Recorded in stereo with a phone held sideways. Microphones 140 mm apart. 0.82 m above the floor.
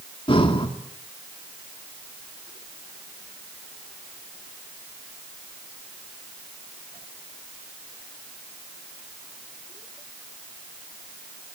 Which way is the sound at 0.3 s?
40° left (ahead or behind).